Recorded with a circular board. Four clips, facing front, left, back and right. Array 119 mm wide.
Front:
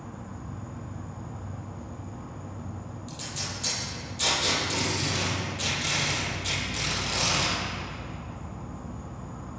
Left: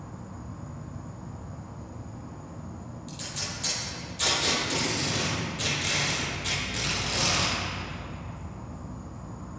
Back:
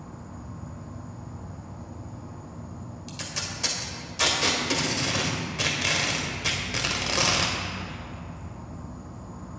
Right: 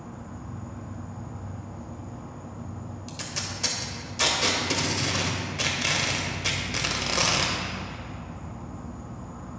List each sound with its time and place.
0.0 s an insect: 50° right, 1.3 m
3.1 s tape being pulled: 135° right, 1.6 m